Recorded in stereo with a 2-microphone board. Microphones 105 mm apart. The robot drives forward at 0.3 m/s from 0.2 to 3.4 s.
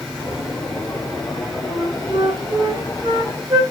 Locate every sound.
1.7 s a flute: 40° right (ahead or behind), 3 m; by 3.6 s 35° right (ahead or behind), 3 m